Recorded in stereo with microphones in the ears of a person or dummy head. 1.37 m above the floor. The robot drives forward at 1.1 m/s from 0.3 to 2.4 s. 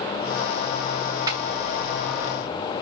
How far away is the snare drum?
About 2 m.